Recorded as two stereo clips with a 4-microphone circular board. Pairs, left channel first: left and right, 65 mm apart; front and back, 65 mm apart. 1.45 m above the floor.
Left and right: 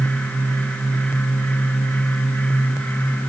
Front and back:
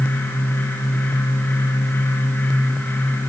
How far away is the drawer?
No drawer in this recording.